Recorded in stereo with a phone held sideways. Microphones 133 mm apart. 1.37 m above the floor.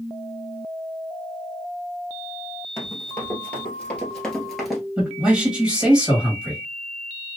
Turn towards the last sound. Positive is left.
turn(degrees=-5)  # may be behind; listen again after turning